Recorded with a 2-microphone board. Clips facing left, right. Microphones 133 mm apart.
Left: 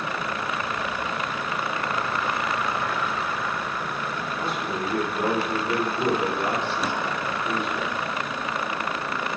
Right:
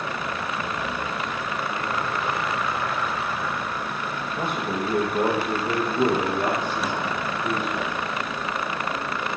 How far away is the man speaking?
About 5 m.